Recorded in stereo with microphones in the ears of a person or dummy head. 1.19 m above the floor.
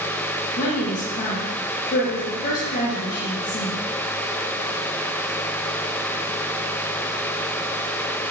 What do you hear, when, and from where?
0.6 s a woman speaking: 45° left (ahead or behind), 0.6 m